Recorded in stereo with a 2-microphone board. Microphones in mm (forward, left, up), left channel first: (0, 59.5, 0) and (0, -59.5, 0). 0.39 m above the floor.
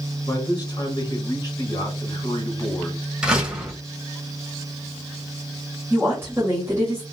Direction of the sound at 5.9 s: 20° right (ahead or behind).